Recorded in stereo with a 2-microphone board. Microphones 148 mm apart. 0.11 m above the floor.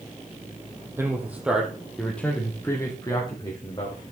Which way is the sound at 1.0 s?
20° right (ahead or behind).